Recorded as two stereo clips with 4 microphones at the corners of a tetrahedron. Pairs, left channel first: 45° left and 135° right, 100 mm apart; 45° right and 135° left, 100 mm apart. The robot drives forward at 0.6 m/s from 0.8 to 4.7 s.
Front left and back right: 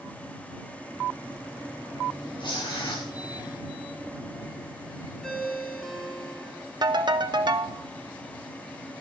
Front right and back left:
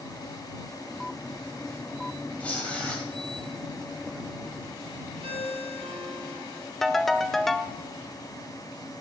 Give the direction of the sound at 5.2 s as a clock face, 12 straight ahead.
8 o'clock.